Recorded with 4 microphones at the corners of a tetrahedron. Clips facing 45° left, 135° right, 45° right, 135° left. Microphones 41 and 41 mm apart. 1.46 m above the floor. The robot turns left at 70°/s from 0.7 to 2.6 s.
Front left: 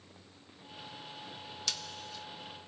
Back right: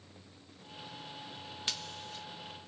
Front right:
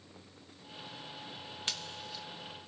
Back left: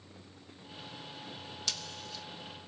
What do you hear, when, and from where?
1.7 s scissors: 85° right, 1.0 m; by 2.2 s 125° right, 1.0 m